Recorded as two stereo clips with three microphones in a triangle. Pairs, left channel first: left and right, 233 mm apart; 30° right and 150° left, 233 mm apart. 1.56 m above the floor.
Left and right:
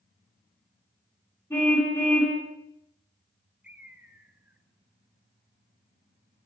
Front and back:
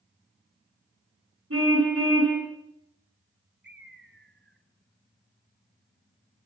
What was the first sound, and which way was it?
A car horn, 170° left.